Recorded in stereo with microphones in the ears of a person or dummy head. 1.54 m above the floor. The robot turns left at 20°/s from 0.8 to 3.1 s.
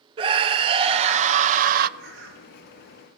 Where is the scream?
35° right (ahead or behind), 0.6 m; by 1.9 s 55° right (ahead or behind), 0.6 m.